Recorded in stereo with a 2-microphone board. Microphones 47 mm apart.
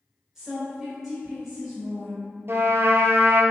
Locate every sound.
0.3 s a woman speaking: 10° right (ahead or behind), 1.6 m
2.5 s a trumpet: 60° right (ahead or behind), 0.5 m